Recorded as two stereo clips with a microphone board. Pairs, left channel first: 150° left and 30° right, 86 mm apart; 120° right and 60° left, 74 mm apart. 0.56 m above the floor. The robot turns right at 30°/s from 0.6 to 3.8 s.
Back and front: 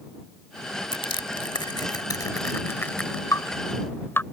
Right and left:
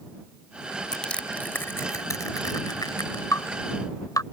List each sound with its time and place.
0.9 s crushing: 160° left; by 3.2 s 130° right
3.3 s dripping: 165° right; by 4.2 s 150° right